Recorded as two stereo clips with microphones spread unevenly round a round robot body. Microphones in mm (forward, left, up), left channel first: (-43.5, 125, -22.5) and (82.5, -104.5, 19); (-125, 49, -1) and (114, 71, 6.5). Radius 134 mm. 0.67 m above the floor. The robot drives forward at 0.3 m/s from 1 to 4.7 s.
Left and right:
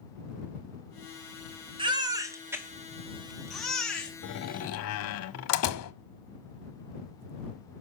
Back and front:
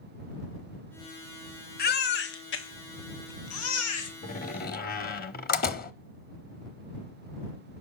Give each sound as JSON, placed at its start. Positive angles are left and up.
{"t": 1.8, "sound": "a baby crying", "azimuth_deg": -135, "distance_m": 0.8}
{"t": 4.2, "sound": "a door slam", "azimuth_deg": 130, "distance_m": 0.8}